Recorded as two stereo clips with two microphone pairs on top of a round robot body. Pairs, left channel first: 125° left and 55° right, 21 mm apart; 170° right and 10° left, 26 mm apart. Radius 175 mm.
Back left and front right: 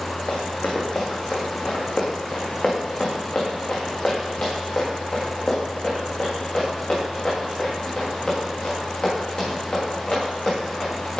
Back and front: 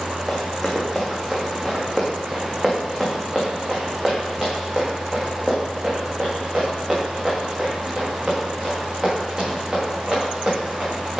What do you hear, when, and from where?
0.3 s running footsteps: 90° left, 4 m; by 11.2 s 65° left, 9 m